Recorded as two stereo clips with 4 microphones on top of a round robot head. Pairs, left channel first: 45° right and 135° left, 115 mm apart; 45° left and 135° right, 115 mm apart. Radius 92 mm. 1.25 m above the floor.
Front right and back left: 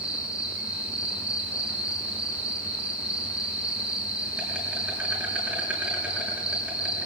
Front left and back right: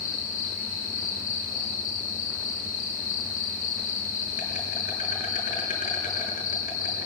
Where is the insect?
55° left, 9 m.